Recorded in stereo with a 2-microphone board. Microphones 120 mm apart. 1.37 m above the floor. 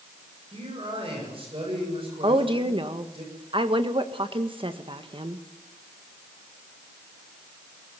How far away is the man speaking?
About 7.5 m.